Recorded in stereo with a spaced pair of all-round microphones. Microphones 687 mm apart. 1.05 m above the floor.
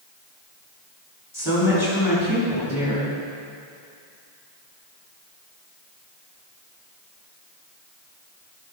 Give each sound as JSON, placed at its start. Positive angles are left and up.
{"t": 1.3, "sound": "a woman speaking", "side_deg": 30, "distance_m": 3.0}